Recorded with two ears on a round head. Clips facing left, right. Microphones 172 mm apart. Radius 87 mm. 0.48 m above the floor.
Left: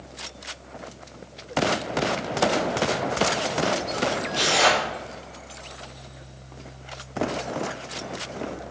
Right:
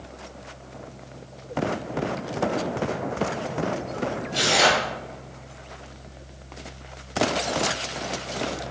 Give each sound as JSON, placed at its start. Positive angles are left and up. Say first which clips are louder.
{"t": 4.3, "sound": "tearing paper", "louder": "right 2 dB", "side_deg": -20, "distance_m": 1.7}